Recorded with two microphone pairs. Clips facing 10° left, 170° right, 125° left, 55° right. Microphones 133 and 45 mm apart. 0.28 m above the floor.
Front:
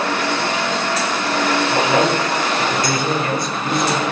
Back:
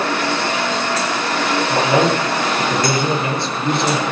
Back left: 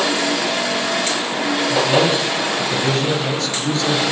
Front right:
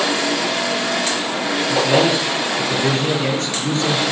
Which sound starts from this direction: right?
A man speaking, at 1.7 s.